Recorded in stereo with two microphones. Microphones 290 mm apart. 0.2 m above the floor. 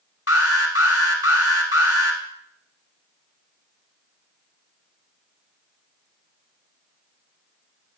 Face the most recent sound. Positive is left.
turn(degrees=55)  # may be behind; listen again after turning